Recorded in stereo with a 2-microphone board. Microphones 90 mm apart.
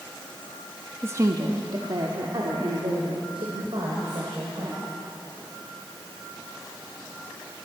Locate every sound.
1.0 s a woman speaking: 25° right (ahead or behind), 0.8 m; by 4.8 s 80° right, 4 m